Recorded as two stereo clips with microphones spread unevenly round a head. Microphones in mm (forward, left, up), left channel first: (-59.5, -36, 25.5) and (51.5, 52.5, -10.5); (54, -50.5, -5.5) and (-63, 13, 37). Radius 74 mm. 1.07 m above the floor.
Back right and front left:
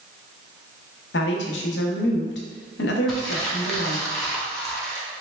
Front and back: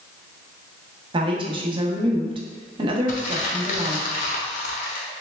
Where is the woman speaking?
150° right, 0.8 m.